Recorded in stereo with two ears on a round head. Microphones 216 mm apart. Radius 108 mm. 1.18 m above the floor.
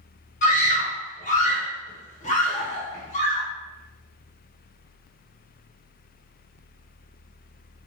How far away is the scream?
About 0.9 m.